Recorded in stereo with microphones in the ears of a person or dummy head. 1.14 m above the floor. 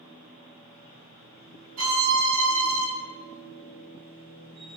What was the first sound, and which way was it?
A machine running, 45° right (ahead or behind).